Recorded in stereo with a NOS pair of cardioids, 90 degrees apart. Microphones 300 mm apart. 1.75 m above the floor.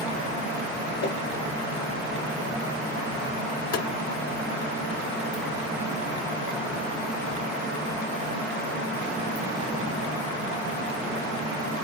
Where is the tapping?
55° left, 0.8 m.